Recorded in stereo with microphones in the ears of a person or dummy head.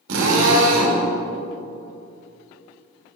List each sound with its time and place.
0.1 s a drill: 65° right (ahead or behind), 3 m